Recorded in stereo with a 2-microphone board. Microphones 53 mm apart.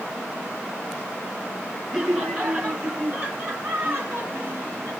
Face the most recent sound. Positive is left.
turn(degrees=-45)  # may be behind; listen again after turning